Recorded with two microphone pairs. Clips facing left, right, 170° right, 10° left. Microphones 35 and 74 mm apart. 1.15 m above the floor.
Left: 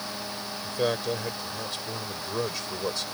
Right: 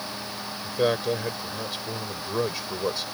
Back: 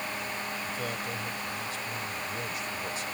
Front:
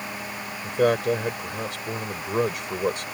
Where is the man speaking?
15° right.